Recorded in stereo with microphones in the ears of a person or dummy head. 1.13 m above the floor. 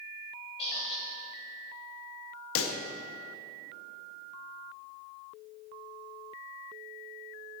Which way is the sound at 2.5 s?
65° left (ahead or behind).